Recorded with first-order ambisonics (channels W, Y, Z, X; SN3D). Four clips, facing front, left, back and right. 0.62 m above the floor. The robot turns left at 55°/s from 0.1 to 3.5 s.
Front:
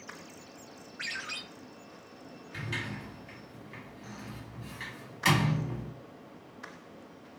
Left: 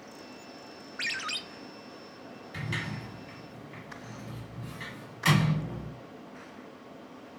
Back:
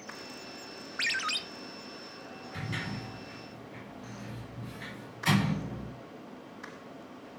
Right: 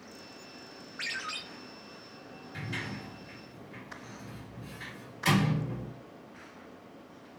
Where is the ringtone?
170° left, 0.6 m; by 1.4 s 145° left, 0.6 m.